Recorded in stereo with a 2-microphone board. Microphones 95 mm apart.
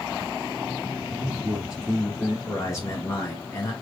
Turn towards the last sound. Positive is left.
turn(degrees=30)  # may be behind; listen again after turning